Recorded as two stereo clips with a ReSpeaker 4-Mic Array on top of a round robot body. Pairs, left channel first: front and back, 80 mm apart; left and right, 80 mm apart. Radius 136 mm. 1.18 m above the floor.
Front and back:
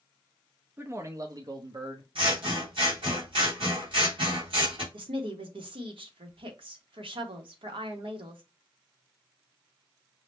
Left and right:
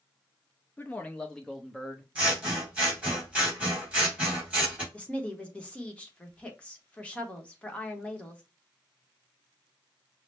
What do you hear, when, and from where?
0.8 s a man speaking: 140° left, 0.7 m; by 2.0 s 175° right, 1.1 m
2.1 s scissors: 165° right, 2.5 m
4.9 s a woman speaking: 165° left, 1.0 m